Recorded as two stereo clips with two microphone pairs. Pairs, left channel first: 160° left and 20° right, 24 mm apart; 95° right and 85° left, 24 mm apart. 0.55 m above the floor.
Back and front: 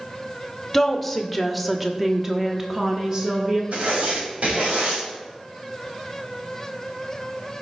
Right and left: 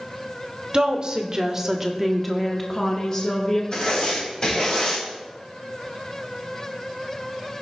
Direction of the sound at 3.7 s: 35° right.